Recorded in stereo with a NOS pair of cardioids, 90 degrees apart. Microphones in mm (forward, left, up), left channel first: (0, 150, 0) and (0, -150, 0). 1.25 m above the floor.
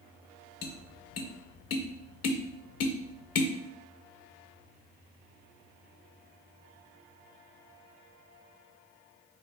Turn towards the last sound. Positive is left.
turn(degrees=60)